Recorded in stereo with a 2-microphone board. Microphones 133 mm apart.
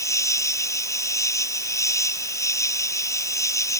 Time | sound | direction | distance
0.0 | an insect | 25° left (ahead or behind) | ?